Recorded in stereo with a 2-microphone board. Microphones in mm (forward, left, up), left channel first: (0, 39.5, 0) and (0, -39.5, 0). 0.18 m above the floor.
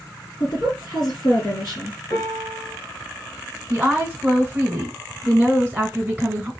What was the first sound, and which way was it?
A woman speaking, 50° left (ahead or behind).